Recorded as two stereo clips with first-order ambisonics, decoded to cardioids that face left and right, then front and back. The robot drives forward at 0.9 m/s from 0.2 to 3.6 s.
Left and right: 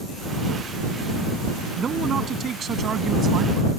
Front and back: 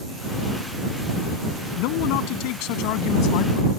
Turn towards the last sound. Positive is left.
turn(degrees=-30)